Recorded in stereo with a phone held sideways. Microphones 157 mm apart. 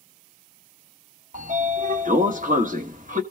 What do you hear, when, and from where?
1.3 s a sliding door: 60° right (ahead or behind), 1.2 m